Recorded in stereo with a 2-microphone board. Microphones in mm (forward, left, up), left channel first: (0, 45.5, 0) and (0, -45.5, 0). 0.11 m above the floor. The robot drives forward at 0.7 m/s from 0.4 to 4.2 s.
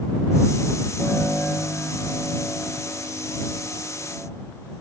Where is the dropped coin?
I don't hear a dropped coin.